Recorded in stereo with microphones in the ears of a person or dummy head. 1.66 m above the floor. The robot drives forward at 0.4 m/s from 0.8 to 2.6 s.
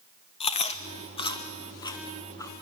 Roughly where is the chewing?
Left.